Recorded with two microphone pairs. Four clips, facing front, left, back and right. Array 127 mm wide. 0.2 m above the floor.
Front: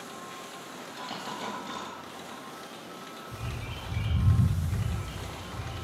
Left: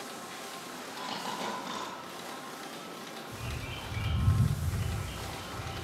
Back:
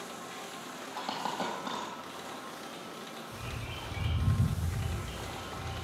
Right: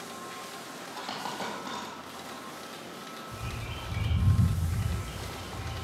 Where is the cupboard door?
I don't hear a cupboard door.